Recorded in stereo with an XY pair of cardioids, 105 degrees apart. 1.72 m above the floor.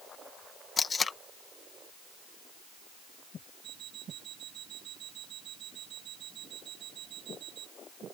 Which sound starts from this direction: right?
An alarm clock, at 3.6 s.